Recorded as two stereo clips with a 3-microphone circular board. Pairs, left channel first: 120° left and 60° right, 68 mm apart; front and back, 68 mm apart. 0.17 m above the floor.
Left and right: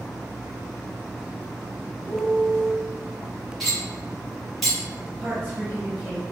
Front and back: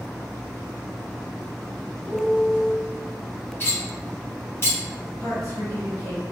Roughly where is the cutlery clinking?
Ahead left.